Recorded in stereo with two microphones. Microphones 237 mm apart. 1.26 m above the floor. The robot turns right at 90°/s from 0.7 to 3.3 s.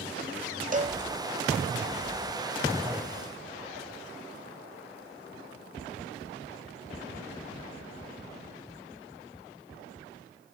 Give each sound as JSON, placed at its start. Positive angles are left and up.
{"t": 0.7, "sound": "a cowbell", "side_deg": -35, "distance_m": 0.5}